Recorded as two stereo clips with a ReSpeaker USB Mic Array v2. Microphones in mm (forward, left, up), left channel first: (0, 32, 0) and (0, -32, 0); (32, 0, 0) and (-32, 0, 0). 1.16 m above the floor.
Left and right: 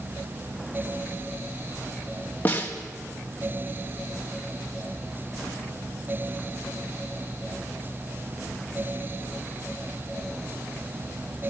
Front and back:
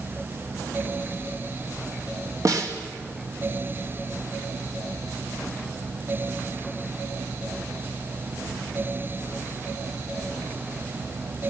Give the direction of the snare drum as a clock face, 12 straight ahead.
7 o'clock.